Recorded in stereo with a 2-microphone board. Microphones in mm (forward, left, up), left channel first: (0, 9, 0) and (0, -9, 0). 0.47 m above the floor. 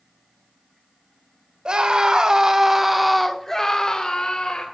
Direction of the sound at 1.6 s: 55° right (ahead or behind).